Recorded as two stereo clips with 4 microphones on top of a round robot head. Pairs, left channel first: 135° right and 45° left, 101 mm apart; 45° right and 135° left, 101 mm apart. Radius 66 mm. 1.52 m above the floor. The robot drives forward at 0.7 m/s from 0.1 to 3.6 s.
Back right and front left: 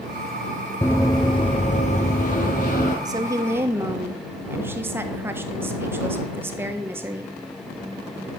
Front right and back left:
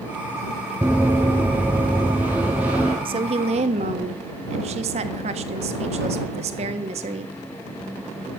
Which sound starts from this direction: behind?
Running footsteps, at 0.8 s.